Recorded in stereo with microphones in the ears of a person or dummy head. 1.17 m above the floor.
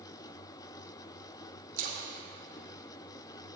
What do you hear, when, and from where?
1.8 s a splash: 40° right (ahead or behind), 0.9 m